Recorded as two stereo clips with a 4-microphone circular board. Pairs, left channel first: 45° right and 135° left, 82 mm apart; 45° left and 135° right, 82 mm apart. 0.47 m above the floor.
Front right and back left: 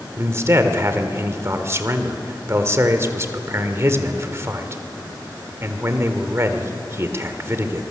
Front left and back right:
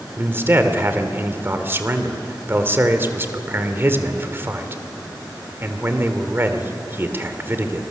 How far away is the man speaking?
About 1.7 m.